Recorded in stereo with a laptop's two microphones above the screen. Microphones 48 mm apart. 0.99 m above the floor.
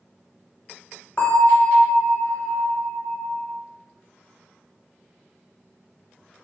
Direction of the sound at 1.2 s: 40° left (ahead or behind).